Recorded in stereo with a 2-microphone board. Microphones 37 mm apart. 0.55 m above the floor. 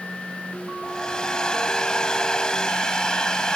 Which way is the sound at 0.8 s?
20° left (ahead or behind).